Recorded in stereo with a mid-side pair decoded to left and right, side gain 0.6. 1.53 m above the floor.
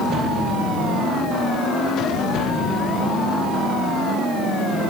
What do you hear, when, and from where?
Only background noise.